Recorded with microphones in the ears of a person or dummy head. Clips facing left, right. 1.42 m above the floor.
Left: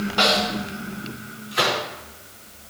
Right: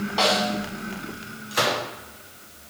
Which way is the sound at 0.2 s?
5° left (ahead or behind).